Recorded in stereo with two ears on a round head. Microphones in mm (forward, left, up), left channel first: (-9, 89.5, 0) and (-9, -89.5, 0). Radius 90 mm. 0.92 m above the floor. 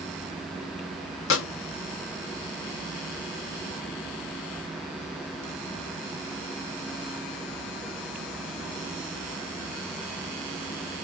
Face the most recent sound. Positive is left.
turn(degrees=70)  # may be behind; listen again after turning